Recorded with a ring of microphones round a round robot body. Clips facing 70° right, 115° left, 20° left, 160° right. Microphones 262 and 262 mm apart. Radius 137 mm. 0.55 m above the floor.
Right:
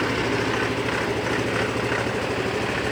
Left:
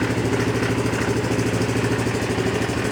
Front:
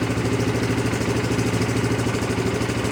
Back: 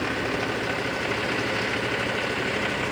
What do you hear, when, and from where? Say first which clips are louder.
0.0 s an engine running: left 3 dB, front 6 dB; 60° left